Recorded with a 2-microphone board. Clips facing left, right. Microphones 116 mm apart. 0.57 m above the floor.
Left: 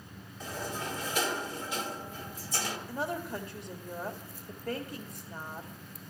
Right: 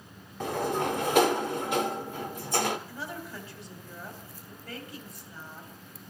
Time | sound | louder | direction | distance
0.4 | a sliding door | right 9 dB | 65° right (ahead or behind) | 0.5 m
2.9 | a woman speaking | left 5 dB | 50° left (ahead or behind) | 1.9 m